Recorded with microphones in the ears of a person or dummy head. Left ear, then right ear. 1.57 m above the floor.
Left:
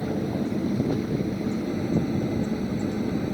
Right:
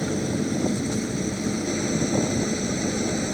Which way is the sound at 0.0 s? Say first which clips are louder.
Right 2 dB; 80° right.